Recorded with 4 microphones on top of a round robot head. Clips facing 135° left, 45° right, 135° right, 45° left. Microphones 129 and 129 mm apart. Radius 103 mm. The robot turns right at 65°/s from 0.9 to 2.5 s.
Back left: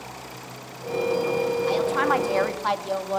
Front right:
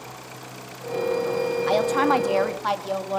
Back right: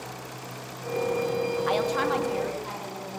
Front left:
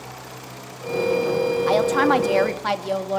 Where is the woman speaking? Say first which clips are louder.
Front right 5 dB, front left 9 dB; 10° right, 2.5 m; by 3.2 s 45° left, 2.5 m.